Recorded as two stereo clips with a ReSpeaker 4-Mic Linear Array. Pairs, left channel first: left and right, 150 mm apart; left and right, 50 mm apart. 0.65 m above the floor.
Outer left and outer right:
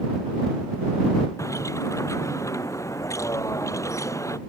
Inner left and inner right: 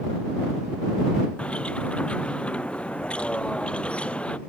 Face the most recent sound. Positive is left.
turn(degrees=20)  # may be behind; listen again after turning